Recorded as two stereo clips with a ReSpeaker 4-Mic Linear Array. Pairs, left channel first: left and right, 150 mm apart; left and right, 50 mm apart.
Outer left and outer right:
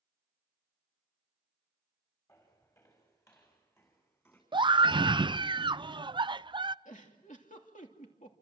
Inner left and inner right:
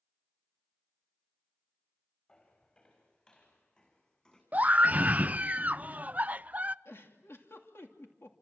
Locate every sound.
2.3 s footsteps: 20° left (ahead or behind), 7 m; by 4.4 s 15° left (ahead or behind), 6 m
4.5 s a scream: 30° right (ahead or behind), 0.6 m
6.8 s a giggle: 55° left (ahead or behind), 2.5 m